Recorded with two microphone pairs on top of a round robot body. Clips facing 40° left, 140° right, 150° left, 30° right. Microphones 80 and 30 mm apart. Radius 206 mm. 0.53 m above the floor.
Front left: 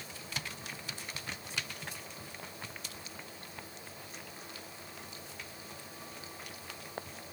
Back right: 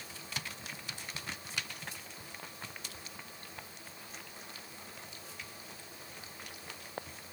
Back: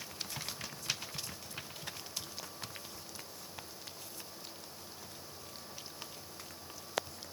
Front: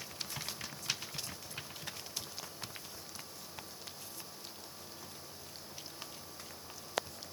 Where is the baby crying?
I don't hear a baby crying.